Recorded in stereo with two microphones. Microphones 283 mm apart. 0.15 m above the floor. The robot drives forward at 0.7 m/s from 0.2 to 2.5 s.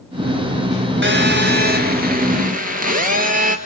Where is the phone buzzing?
40° right (ahead or behind), 2.0 m; by 3.5 s 30° right (ahead or behind), 2.5 m.